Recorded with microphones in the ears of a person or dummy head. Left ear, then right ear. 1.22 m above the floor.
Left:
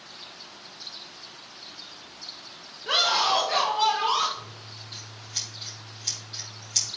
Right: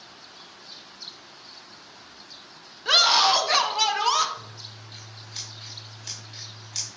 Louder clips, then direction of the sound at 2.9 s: Right 4 dB; 35° right (ahead or behind).